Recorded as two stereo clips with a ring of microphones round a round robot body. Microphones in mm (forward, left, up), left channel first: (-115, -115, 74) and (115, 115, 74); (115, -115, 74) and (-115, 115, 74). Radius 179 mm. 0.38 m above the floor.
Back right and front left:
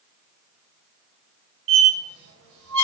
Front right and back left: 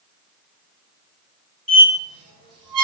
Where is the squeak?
95° left, 1.3 m.